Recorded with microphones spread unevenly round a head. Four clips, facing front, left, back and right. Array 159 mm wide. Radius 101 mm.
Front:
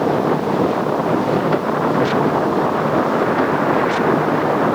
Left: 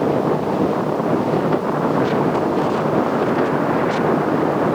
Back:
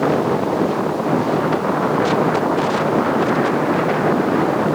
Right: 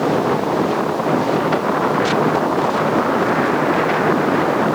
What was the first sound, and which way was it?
Only background noise.